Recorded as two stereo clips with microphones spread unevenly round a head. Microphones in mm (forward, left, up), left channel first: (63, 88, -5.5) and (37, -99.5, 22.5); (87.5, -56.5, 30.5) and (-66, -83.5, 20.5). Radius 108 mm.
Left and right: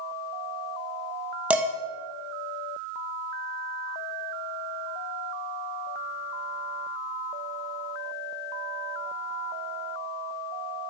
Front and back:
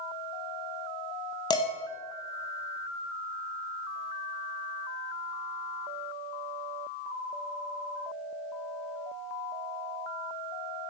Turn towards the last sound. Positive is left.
turn(degrees=-30)